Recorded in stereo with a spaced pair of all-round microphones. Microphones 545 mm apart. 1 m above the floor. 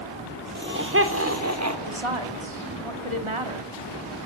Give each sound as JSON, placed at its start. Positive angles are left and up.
{"t": 0.6, "sound": "laughter", "side_deg": -20, "distance_m": 4.0}
{"t": 1.9, "sound": "a woman speaking", "side_deg": -70, "distance_m": 2.5}